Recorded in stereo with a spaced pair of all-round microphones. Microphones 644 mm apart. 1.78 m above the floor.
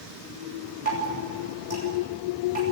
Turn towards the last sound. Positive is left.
turn(degrees=-60)  # may be behind; listen again after turning